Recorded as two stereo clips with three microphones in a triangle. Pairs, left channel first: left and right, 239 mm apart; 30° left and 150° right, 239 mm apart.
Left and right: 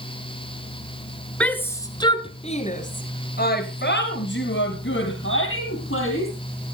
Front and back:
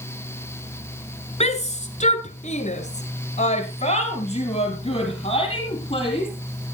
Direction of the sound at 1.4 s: 10° left.